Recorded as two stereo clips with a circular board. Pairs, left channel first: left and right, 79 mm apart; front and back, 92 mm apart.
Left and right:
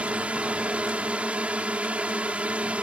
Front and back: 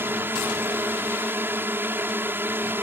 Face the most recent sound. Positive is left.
turn(degrees=-145)